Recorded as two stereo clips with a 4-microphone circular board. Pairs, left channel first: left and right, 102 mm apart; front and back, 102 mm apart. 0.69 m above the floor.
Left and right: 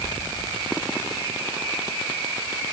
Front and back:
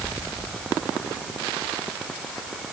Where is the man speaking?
No man speaking in this recording.